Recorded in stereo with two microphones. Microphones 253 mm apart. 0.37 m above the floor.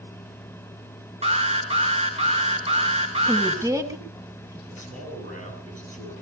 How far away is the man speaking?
About 7.5 m.